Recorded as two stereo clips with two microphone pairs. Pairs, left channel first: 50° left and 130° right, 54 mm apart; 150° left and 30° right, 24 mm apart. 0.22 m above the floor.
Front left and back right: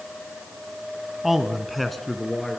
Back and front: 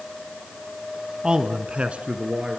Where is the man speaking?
45° right, 1.4 m; by 2.6 s 35° right, 3 m.